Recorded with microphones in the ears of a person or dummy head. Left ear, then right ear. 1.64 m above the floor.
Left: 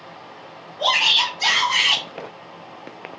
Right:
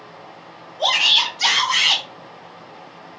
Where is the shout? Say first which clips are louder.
Right 1 dB; 15° right (ahead or behind), 1.4 m; by 2.0 s 50° right (ahead or behind), 1.1 m.